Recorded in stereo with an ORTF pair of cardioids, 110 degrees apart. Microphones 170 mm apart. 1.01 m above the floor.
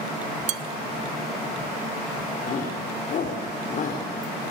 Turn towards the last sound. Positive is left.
turn(degrees=50)